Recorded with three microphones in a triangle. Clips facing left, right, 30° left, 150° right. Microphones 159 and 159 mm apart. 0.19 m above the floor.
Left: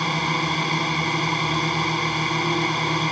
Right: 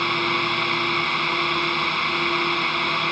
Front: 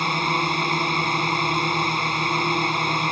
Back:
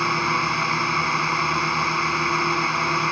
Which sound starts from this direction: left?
A drone, at 0.0 s.